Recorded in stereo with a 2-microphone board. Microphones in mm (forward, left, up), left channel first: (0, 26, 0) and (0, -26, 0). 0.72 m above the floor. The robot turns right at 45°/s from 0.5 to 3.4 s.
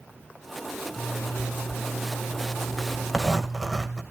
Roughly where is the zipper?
Left.